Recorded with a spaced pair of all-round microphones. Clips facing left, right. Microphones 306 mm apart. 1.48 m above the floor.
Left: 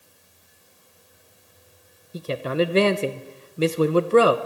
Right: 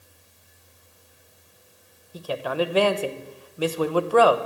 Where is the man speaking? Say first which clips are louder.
Left 3 dB; 25° left (ahead or behind), 0.8 m.